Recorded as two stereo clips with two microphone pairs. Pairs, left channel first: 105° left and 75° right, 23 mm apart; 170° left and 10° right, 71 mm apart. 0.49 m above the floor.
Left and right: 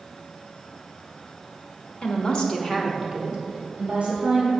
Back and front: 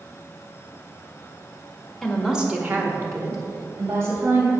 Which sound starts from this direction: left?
A woman speaking, at 2.0 s.